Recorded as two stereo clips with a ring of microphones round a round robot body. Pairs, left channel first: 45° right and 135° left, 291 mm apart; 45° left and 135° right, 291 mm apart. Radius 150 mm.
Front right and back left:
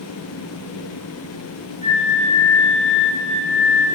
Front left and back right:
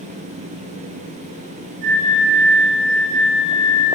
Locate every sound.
1.8 s a flute: 115° right, 8.5 m